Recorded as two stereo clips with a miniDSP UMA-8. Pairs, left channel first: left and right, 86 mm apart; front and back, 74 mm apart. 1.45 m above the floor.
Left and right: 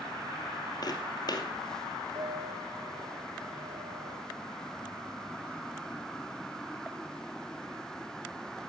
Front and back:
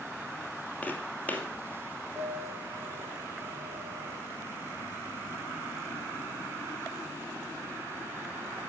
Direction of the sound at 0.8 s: 65° left.